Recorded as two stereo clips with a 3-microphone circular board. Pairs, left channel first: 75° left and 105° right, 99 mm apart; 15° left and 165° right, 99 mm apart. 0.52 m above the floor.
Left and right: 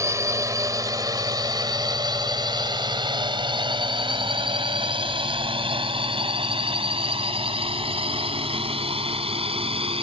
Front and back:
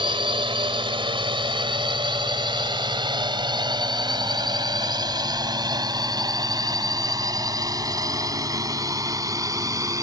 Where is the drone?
160° right; by 10.0 s 110° right.